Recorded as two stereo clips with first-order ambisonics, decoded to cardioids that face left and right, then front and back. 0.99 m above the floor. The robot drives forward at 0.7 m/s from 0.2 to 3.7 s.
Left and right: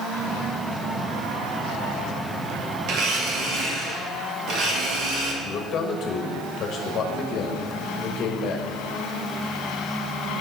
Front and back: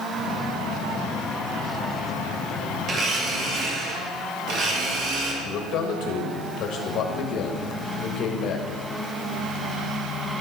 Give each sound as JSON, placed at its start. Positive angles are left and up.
{"t": 2.9, "sound": "a blender", "azimuth_deg": -120, "distance_m": 1.4}
{"t": 5.4, "sound": "a man speaking", "azimuth_deg": 40, "distance_m": 1.4}